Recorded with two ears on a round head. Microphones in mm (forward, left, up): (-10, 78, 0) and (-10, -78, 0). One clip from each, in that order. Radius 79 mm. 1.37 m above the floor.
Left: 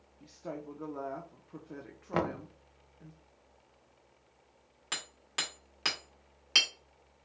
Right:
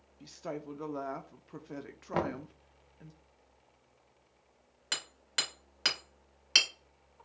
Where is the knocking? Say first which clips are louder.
Left 1 dB; 5° left (ahead or behind), 0.6 m.